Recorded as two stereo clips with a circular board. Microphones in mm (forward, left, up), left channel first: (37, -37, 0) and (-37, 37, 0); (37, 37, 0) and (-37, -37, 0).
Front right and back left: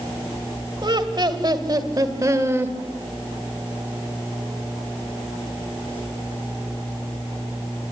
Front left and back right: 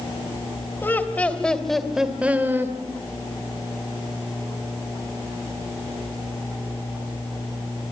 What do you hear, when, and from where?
0.8 s laughter: 110° left, 2.5 m; by 2.8 s 175° right, 1.7 m